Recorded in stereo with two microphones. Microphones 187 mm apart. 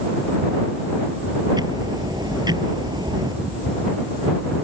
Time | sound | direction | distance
1.5 | ticking | 20° right (ahead or behind) | ?